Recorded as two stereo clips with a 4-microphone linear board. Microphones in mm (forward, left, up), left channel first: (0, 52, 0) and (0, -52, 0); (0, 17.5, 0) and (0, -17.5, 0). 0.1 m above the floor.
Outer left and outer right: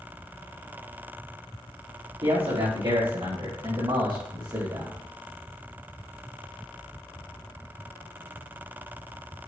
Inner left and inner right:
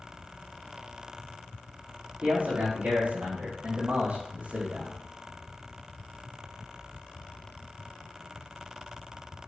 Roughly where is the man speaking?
Right.